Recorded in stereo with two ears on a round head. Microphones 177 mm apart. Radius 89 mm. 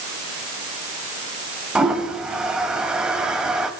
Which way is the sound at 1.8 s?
5° right (ahead or behind).